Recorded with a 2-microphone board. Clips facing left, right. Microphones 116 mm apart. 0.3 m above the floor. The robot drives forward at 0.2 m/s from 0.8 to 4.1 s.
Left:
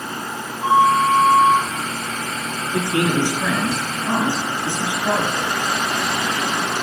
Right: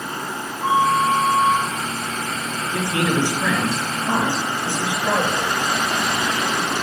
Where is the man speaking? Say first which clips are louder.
Left 2 dB; 20° left (ahead or behind), 4 m.